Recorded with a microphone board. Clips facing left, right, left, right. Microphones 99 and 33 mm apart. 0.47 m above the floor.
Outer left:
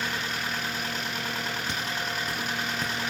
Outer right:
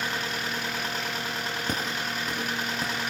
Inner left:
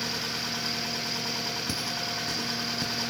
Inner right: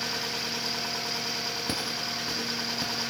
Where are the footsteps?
45° right (ahead or behind), 1.0 m; by 3.0 s 5° right (ahead or behind), 2.5 m.